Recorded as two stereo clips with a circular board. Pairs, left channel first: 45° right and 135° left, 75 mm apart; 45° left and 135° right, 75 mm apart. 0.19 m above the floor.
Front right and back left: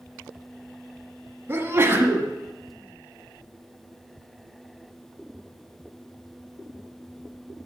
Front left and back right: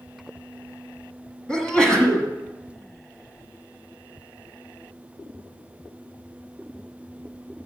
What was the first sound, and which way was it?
A sneeze, 115° left.